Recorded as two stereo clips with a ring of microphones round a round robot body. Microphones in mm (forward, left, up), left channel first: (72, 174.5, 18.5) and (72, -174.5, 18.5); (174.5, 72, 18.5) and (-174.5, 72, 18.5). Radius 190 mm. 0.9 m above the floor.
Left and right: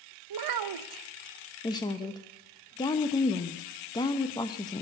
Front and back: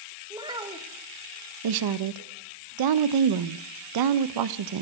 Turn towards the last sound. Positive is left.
turn(degrees=170)